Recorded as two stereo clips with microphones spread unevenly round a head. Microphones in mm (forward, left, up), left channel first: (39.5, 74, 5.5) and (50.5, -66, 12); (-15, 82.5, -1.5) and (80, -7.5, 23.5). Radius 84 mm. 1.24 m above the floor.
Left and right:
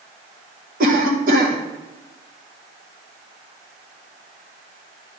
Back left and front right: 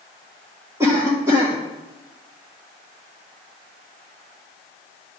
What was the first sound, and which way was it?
A cough, 120° right.